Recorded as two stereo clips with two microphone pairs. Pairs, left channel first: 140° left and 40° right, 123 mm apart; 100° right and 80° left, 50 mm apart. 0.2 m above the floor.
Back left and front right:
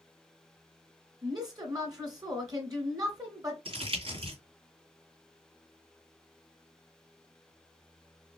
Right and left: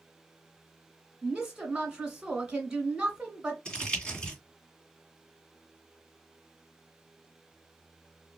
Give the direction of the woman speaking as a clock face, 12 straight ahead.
12 o'clock.